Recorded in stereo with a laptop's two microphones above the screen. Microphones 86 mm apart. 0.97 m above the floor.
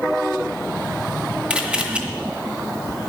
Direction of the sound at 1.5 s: 15° right (ahead or behind).